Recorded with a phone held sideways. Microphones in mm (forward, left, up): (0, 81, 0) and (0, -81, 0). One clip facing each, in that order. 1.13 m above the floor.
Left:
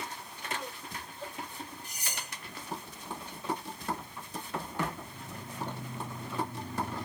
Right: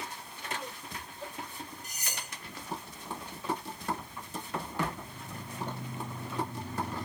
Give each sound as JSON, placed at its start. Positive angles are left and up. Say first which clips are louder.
{"t": 1.8, "sound": "cutlery clinking", "louder": "even", "side_deg": 30, "distance_m": 1.3}